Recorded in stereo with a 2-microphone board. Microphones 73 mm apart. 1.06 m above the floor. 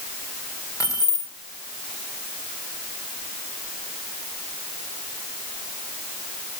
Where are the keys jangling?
50° left (ahead or behind), 2.5 m.